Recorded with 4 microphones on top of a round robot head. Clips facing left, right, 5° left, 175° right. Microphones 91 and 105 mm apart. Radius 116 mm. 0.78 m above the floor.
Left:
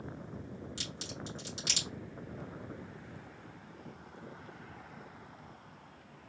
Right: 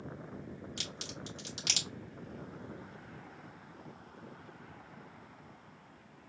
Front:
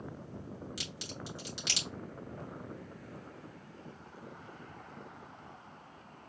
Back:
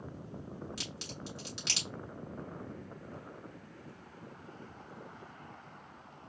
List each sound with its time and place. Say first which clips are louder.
0.8 s a crack: left 1 dB, even; 75° right, 3 m